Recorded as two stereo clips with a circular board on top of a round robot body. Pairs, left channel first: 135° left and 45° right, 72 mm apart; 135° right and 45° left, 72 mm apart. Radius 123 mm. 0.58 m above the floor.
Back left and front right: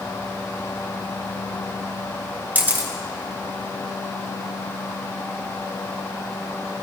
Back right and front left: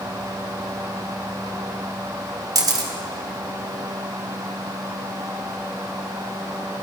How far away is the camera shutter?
About 1.4 m.